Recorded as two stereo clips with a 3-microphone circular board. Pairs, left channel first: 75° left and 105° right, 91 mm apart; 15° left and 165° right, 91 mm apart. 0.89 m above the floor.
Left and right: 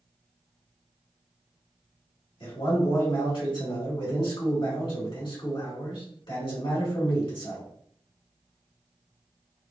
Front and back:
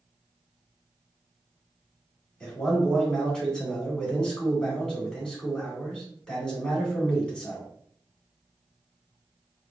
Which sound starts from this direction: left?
A man speaking, at 2.4 s.